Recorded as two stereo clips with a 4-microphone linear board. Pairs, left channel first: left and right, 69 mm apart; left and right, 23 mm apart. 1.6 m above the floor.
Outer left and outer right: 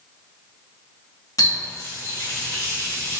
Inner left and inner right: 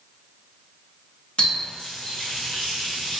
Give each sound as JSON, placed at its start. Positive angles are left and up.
{"t": 1.4, "sound": "a running tap", "side_deg": 55, "distance_m": 0.9}